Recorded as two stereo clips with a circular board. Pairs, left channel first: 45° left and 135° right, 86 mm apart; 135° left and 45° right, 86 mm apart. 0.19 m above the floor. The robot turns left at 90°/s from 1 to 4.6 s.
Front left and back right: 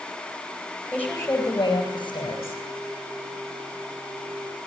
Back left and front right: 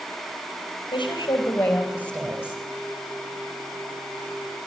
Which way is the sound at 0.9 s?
120° left.